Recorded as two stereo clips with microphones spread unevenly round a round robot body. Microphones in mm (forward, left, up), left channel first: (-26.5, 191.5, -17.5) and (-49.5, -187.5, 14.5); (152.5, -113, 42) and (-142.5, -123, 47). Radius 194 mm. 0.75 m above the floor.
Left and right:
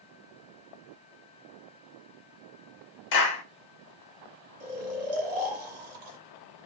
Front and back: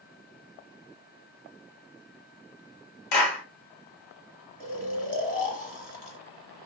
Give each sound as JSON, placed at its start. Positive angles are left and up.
{"t": 3.1, "sound": "a clap", "azimuth_deg": 30, "distance_m": 0.9}
{"t": 4.6, "sound": "snoring", "azimuth_deg": -60, "distance_m": 1.3}